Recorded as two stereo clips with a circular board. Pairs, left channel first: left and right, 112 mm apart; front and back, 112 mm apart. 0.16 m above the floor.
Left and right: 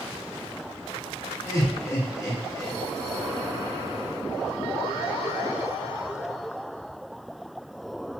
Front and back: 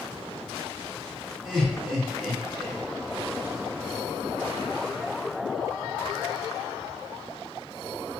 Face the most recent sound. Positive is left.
turn(degrees=95)